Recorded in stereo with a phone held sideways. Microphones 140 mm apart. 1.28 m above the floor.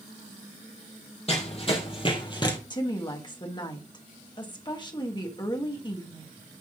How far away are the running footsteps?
About 3 m.